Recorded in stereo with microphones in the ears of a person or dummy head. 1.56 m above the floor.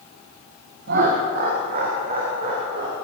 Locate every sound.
0.9 s laughter: 60° right (ahead or behind), 1.6 m; by 3.0 s 50° right (ahead or behind), 3 m